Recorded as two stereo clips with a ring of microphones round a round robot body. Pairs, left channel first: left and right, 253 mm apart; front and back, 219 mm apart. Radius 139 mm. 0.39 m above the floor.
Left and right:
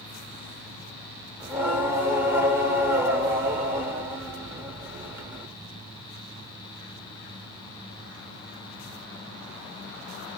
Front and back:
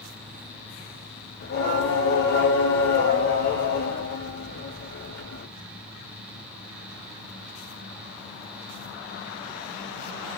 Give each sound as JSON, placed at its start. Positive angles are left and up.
{"t": 1.4, "sound": "singing", "azimuth_deg": -10, "distance_m": 0.9}